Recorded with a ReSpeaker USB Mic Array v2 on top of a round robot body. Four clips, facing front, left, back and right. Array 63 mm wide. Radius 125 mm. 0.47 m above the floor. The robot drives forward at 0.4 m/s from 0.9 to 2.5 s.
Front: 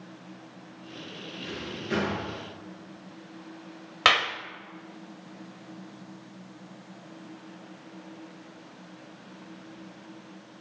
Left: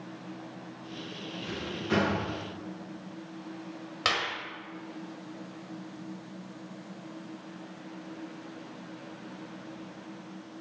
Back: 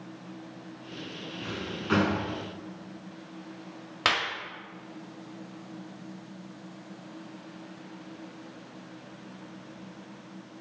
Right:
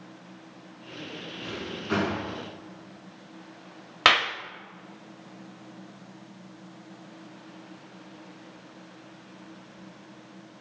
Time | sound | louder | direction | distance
1.4 | a drawer | even, back 1 dB | 170° right | 3 m
4.0 | a clap | right 8 dB, front 5 dB | 65° right | 0.9 m